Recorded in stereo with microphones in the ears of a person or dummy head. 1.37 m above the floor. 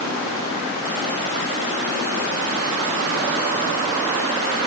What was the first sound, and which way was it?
Only background noise.